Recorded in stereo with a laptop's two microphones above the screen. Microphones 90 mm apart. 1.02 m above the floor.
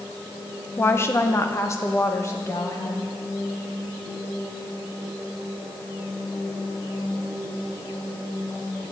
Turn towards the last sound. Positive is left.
turn(degrees=30)  # may be behind; listen again after turning